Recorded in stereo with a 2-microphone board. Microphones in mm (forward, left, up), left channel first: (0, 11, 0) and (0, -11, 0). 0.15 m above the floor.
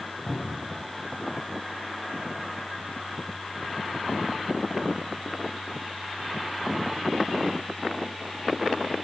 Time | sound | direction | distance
0.3 | a cupboard door | 65° left (ahead or behind) | 5 m